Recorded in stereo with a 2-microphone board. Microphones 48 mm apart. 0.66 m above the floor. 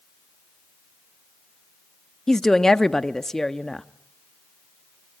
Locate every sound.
2.3 s a woman speaking: 10° left (ahead or behind), 0.6 m